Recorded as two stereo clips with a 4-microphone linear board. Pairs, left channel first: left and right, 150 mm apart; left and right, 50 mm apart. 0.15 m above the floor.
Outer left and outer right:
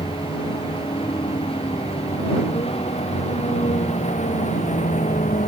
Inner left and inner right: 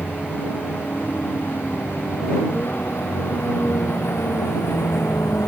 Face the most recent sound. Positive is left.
turn(degrees=55)  # may be behind; listen again after turning